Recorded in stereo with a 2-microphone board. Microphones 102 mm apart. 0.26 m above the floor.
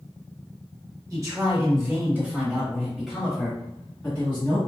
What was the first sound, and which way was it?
A man speaking, 35° right (ahead or behind).